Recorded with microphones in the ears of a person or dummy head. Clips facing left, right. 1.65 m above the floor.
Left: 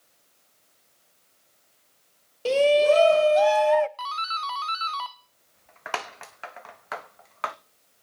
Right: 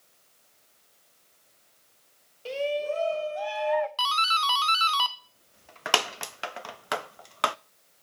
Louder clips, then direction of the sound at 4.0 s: Right 4 dB; 45° right (ahead or behind).